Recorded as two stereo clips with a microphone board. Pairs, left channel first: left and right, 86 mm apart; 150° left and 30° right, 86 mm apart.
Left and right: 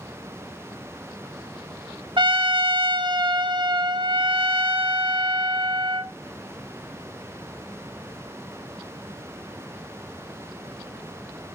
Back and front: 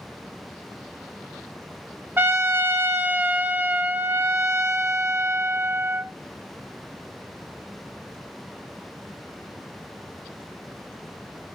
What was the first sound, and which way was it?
A trumpet, 90° right.